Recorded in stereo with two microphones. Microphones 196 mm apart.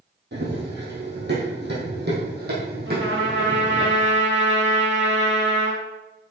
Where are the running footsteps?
60° right (ahead or behind), 2.5 m; by 3.9 s 50° right (ahead or behind), 3.5 m.